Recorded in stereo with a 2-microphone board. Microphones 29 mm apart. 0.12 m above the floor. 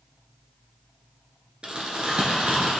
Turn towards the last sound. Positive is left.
turn(degrees=-40)  # may be behind; listen again after turning